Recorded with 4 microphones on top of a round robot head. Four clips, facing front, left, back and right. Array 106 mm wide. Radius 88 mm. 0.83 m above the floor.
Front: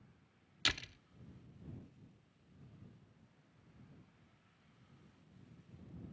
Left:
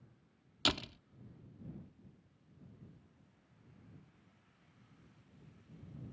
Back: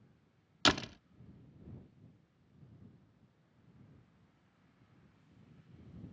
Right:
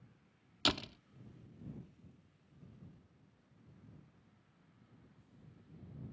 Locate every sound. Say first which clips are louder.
0.7 s a door slam: even, back 11 dB; 175° right